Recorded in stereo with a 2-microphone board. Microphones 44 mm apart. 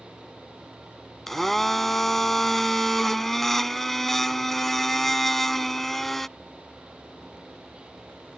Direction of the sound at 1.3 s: 5° left (ahead or behind).